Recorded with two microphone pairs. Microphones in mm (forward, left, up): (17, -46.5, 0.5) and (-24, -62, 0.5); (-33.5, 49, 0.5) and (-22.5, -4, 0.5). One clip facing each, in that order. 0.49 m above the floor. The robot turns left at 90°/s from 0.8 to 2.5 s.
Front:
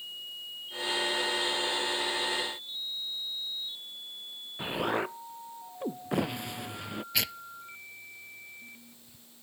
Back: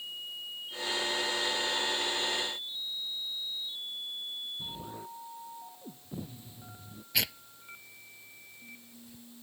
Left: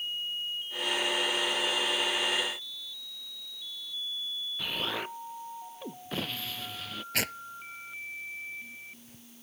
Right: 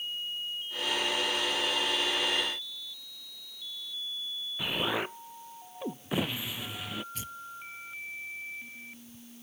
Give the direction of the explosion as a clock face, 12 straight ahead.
12 o'clock.